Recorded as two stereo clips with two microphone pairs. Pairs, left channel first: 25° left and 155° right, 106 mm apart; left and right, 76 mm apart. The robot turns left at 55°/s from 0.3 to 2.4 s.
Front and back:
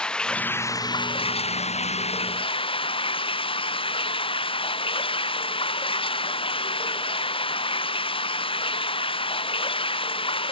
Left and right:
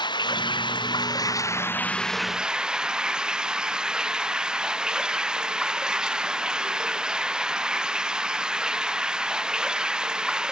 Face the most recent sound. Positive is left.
turn(degrees=-10)